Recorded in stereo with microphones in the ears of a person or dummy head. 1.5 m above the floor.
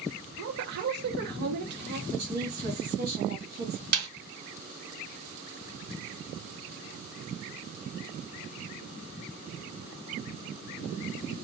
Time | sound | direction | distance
0.4 | a woman speaking | 60° right (ahead or behind) | 0.8 m
2.1 | a woman speaking | 50° right (ahead or behind) | 1.2 m
3.9 | a snare drum | 55° right (ahead or behind) | 1.0 m